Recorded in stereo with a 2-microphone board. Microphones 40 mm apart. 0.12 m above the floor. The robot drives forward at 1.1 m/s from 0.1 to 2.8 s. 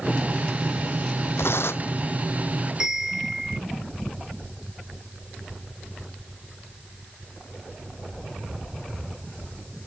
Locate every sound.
1.4 s tearing paper: 75° left (ahead or behind); by 2.0 s 65° left (ahead or behind)
2.8 s a bell: 10° right (ahead or behind)